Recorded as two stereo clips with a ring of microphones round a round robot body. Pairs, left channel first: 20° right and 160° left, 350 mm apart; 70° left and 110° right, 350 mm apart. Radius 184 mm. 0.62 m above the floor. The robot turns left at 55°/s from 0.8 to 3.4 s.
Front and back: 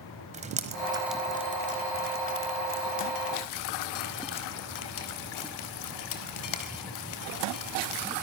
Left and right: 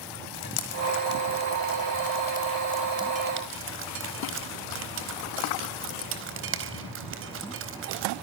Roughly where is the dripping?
Left.